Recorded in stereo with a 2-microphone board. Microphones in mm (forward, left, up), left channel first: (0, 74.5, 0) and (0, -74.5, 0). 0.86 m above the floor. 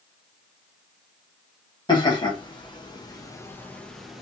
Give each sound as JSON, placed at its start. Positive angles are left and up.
{"t": 1.9, "sound": "laughter", "side_deg": 30, "distance_m": 1.1}